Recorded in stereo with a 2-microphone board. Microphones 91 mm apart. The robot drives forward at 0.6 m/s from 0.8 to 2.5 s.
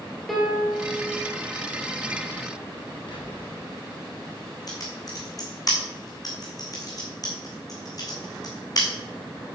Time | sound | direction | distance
0.3 | a piano | centre (ahead or behind) | 2 m
3.1 | whispering | 60° left (ahead or behind) | 3 m
4.7 | typing on a keyboard | 45° left (ahead or behind) | 1.6 m